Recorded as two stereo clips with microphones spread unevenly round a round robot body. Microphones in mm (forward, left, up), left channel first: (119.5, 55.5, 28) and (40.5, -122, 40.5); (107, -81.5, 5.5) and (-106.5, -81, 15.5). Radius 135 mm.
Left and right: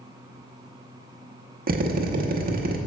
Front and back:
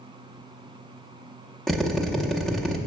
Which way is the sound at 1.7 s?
85° right.